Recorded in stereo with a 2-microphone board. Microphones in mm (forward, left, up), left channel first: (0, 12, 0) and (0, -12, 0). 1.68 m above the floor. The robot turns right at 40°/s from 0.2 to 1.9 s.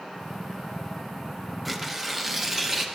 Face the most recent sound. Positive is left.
turn(degrees=-5)  # may be behind; listen again after turning